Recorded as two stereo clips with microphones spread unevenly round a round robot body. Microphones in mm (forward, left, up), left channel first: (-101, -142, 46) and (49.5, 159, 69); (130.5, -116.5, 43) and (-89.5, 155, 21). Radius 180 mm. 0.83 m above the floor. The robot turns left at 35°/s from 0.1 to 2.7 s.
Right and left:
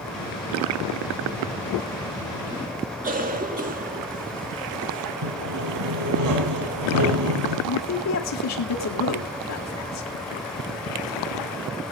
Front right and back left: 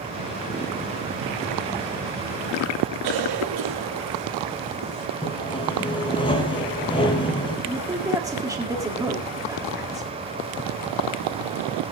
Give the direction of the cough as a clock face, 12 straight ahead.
8 o'clock.